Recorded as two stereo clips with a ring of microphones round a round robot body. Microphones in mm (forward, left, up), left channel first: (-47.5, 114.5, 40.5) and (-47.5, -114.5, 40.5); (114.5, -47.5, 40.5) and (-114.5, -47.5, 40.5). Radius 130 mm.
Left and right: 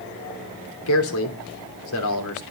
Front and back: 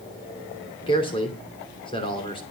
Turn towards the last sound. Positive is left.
turn(degrees=70)